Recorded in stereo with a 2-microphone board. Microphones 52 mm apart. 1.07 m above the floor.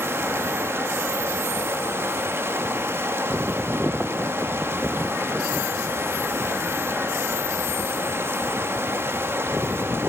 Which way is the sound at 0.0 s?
50° right (ahead or behind).